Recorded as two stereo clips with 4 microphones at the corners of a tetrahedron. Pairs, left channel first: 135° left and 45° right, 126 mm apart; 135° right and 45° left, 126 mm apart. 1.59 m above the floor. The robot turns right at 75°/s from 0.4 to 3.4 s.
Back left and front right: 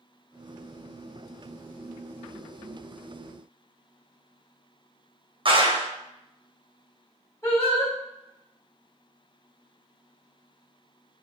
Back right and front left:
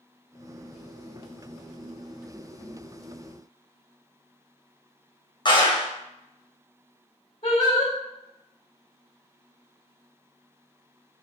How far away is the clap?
About 1.1 m.